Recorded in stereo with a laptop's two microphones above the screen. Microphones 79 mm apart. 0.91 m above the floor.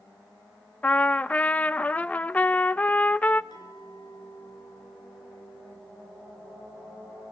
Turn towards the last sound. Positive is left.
turn(degrees=60)  # may be behind; listen again after turning